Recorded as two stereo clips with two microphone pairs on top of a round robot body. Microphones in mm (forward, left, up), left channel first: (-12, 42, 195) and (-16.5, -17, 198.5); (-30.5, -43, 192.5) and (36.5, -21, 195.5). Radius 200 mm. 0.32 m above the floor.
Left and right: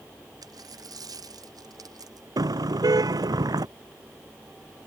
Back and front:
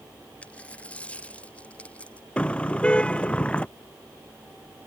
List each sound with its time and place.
0.4 s a dropped coin: 90° right
2.4 s a car horn: 90° right